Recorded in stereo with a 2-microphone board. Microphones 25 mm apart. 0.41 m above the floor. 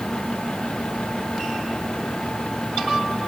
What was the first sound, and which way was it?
Only background noise.